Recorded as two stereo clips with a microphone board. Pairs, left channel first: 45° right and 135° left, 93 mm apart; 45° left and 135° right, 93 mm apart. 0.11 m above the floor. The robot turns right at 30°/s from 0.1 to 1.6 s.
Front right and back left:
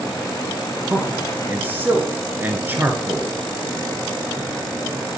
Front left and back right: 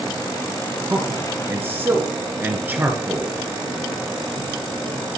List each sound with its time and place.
0.9 s a man speaking: 160° left, 1.2 m; by 3.4 s straight behind, 1.2 m